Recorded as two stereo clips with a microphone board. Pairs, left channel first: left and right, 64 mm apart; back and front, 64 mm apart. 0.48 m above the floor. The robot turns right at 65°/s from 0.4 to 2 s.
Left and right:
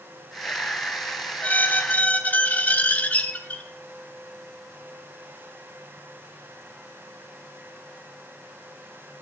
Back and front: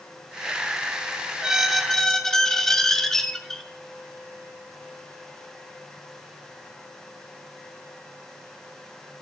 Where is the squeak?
70° left, 0.5 m; by 3.6 s 105° left, 0.5 m.